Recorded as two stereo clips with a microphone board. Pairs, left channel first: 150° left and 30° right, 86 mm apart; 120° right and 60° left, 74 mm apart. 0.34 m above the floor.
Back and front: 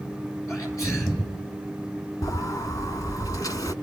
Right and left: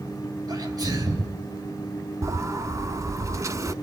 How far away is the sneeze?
About 5 m.